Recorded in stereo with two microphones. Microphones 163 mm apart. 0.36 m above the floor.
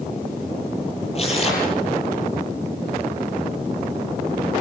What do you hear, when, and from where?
1.1 s tearing paper: 40° left (ahead or behind), 9 m